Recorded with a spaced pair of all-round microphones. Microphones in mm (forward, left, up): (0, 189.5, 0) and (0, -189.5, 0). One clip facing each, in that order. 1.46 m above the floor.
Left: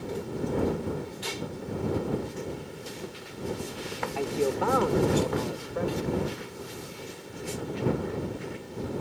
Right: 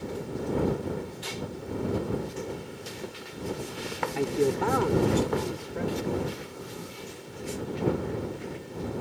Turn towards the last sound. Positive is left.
turn(degrees=-35)  # may be behind; listen again after turning